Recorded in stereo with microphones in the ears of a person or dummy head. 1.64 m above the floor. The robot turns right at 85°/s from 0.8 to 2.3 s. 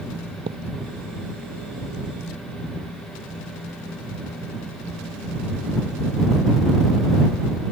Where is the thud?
40° right (ahead or behind).